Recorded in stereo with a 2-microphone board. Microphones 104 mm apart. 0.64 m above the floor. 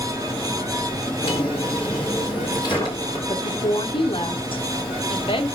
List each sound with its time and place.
1.2 s a drawer: 50° left (ahead or behind), 5 m
3.3 s a woman speaking: 60° left (ahead or behind), 1.7 m